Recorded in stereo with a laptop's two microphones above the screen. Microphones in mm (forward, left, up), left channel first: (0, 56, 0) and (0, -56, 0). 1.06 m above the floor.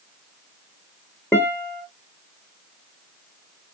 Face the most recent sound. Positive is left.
turn(degrees=15)  # may be behind; listen again after turning